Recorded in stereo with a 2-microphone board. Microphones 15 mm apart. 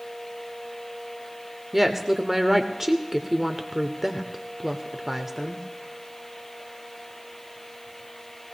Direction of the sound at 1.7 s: 15° right (ahead or behind).